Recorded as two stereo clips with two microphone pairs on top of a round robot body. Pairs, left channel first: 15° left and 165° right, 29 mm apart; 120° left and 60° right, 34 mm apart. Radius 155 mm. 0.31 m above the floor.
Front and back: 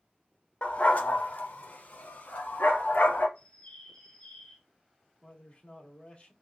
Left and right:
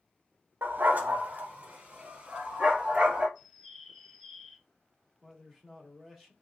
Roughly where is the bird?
Ahead left.